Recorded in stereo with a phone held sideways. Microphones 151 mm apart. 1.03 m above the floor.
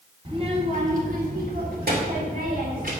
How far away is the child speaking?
About 2 m.